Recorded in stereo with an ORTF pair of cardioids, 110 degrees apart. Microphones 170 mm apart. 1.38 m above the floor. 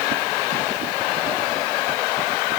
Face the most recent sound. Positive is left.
No sound to turn to.